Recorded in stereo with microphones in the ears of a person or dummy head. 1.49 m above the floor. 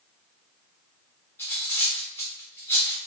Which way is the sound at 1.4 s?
10° left (ahead or behind).